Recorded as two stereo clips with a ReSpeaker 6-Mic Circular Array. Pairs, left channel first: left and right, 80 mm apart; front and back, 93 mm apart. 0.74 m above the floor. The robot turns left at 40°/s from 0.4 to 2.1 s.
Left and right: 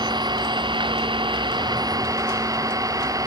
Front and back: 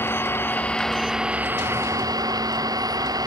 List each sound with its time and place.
0.0 s an engine running: 65° right; by 3.3 s 135° right